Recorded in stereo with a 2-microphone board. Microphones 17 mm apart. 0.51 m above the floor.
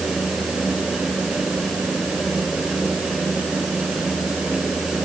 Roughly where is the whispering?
I don't hear whispering.